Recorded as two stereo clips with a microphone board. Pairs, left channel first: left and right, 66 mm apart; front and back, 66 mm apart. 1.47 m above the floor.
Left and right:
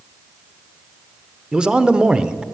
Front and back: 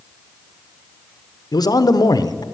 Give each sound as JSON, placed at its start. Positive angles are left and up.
{"t": 1.5, "sound": "a man speaking", "azimuth_deg": -15, "distance_m": 0.7}